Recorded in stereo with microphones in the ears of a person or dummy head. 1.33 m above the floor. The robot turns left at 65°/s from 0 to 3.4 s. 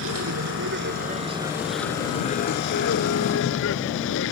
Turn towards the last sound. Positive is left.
turn(degrees=70)